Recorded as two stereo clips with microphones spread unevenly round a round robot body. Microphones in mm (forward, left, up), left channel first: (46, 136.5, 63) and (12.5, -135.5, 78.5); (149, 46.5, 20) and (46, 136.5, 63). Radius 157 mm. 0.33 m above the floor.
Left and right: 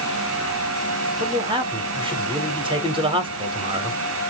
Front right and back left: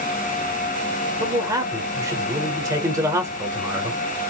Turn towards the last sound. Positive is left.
turn(degrees=-145)